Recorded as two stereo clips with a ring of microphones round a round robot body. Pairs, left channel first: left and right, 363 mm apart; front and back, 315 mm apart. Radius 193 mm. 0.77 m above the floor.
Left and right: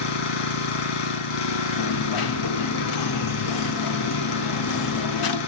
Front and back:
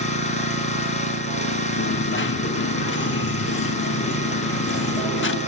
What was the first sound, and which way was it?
An engine running, 70° left.